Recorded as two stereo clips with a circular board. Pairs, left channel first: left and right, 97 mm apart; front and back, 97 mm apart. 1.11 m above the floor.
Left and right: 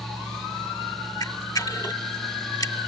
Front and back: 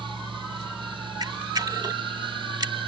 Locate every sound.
1.2 s a camera shutter: 135° left